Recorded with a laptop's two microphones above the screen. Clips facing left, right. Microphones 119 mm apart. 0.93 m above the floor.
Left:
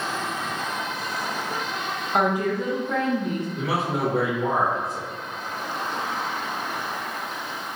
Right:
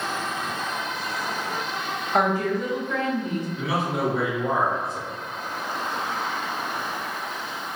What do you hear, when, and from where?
2.1 s a woman speaking: 5° left (ahead or behind), 0.9 m; by 3.5 s 55° left (ahead or behind), 1.1 m
3.6 s a man speaking: 60° left (ahead or behind), 1.9 m